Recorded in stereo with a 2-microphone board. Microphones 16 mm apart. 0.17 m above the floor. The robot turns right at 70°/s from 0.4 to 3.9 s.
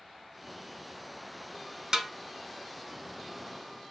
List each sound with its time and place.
1.9 s a snare drum: 40° right (ahead or behind), 0.9 m; by 2.1 s 35° right (ahead or behind), 0.9 m